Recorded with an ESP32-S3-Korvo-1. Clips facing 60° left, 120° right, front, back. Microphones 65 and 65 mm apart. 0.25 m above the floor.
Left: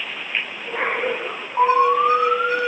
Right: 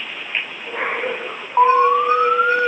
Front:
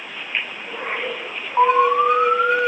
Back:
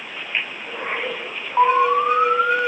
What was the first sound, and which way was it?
An alarm, 95° right.